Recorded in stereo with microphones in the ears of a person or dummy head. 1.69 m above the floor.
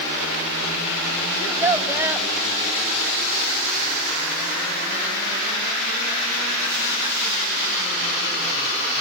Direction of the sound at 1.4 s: 10° right (ahead or behind).